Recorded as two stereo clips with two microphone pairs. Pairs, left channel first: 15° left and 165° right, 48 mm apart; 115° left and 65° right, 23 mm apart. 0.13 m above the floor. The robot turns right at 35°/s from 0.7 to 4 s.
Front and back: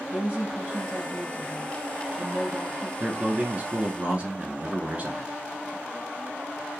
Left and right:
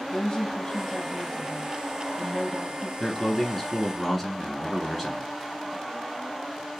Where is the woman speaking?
130° left, 2.5 m; by 2.9 s 150° right, 2.5 m.